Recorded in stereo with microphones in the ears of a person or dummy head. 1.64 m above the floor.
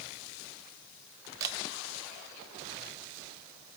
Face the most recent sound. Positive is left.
turn(degrees=-25)  # may be behind; listen again after turning